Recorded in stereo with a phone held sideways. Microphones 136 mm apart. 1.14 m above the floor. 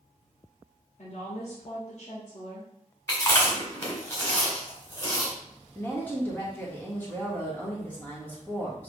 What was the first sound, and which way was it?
A woman speaking, 55° left (ahead or behind).